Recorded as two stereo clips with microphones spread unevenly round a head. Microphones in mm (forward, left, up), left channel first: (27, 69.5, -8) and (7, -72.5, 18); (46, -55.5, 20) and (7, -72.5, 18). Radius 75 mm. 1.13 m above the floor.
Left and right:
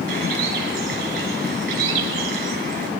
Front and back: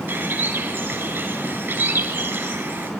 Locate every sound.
0.1 s a bird: 135° right, 6.5 m